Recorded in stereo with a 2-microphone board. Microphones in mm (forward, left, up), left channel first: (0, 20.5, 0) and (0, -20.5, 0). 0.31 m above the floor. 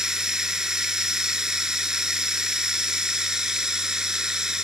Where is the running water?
20° right (ahead or behind), 0.7 m.